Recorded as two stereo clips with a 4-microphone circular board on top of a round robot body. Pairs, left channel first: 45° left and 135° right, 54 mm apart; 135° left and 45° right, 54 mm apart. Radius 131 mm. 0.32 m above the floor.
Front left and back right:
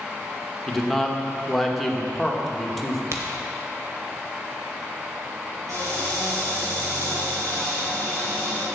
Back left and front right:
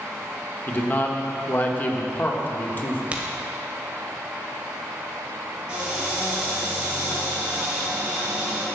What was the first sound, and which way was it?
A man speaking, 130° left.